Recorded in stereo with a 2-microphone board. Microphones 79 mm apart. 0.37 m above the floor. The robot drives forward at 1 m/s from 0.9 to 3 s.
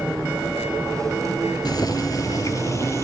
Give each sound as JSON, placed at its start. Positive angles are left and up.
{"t": 1.6, "sound": "boiling", "side_deg": 55, "distance_m": 2.5}